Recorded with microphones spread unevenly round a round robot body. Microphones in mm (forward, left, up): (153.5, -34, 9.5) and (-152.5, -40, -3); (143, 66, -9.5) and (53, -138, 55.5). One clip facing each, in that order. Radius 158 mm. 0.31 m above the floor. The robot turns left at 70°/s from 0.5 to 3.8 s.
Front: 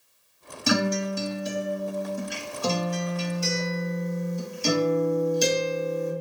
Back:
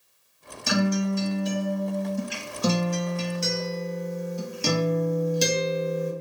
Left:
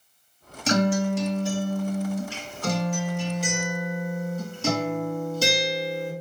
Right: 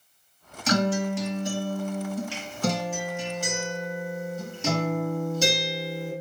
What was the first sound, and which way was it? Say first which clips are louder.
A guitar: back 1 dB, left 2 dB; 20° left.